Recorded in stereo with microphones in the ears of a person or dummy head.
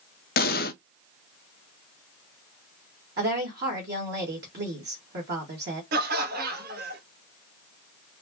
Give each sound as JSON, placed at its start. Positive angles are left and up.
{"t": 0.4, "sound": "an explosion", "side_deg": 50, "distance_m": 0.5}
{"t": 3.2, "sound": "a woman speaking", "side_deg": -55, "distance_m": 2.0}
{"t": 5.9, "sound": "laughter", "side_deg": -55, "distance_m": 1.2}